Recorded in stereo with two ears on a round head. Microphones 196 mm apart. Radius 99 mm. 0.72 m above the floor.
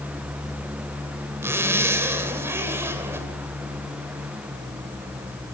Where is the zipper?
10° right (ahead or behind), 2.5 m.